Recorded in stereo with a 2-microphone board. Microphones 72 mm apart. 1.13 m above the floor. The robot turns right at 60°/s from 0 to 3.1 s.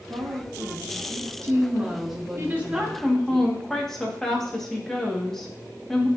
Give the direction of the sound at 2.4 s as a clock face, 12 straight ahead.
1 o'clock.